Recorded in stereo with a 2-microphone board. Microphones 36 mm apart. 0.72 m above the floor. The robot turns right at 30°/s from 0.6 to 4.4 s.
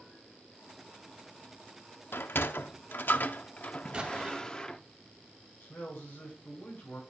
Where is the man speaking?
60° left (ahead or behind), 7.5 m.